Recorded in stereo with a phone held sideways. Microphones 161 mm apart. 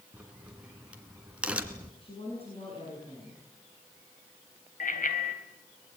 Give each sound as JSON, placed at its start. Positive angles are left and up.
{"t": 0.1, "sound": "a crack", "side_deg": -10, "distance_m": 2.0}
{"t": 2.0, "sound": "a woman speaking", "side_deg": 40, "distance_m": 9.0}
{"t": 4.8, "sound": "a bicycle bell", "side_deg": 65, "distance_m": 3.5}